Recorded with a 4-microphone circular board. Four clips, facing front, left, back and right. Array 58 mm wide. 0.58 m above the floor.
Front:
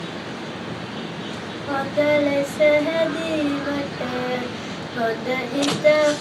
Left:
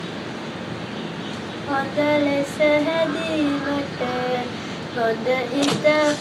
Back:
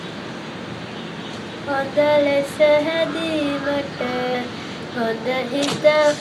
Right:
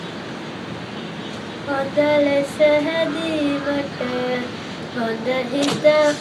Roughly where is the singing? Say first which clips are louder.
Right 2 dB, back 2 dB; behind right.